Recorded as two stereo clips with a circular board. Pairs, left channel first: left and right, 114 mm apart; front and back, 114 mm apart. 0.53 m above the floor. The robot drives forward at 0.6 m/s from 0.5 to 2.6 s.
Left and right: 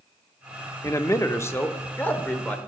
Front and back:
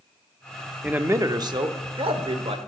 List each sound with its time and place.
0.8 s a man speaking: 115° left, 0.7 m; by 2.6 s 165° left, 1.3 m